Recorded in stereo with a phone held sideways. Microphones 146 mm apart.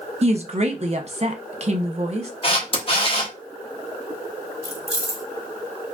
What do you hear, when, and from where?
0.2 s a woman speaking: 50° right (ahead or behind), 0.7 m
2.4 s a camera shutter: 40° left (ahead or behind), 1.0 m
4.6 s keys jangling: 25° right (ahead or behind), 1.2 m